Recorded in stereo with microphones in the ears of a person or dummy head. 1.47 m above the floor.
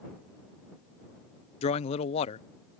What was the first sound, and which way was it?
A man speaking, 30° left (ahead or behind).